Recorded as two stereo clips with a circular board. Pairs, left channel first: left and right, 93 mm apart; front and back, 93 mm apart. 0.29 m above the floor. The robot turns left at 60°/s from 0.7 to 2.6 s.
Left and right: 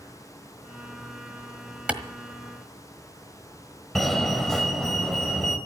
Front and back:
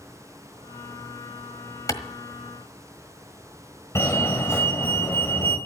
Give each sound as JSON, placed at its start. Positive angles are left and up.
{"t": 1.9, "sound": "a clap", "azimuth_deg": -20, "distance_m": 1.4}
{"t": 4.0, "sound": "a fire alarm", "azimuth_deg": 10, "distance_m": 2.5}